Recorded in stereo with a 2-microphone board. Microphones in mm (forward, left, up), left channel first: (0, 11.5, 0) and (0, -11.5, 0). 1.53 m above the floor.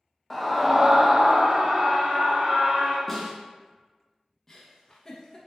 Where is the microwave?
No microwave in this recording.